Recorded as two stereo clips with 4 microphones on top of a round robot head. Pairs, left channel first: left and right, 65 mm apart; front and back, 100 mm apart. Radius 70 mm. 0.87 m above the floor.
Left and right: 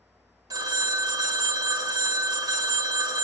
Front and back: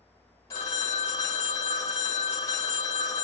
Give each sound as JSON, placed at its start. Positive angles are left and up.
{"t": 0.5, "sound": "a phone ringing", "azimuth_deg": -65, "distance_m": 0.7}